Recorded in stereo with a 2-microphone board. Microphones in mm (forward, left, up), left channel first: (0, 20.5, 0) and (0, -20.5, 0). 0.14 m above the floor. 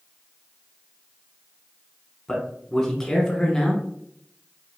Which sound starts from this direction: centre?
A man speaking, at 2.3 s.